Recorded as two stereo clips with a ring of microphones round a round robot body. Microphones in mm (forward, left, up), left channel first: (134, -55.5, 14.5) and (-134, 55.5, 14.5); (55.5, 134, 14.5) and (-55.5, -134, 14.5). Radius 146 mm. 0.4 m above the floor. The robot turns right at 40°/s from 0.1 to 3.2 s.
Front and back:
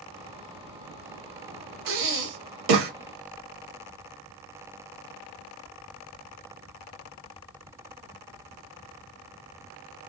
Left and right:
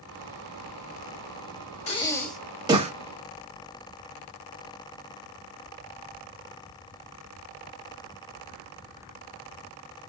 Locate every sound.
1.9 s breathing: 135° left, 0.6 m; by 2.9 s straight behind, 0.6 m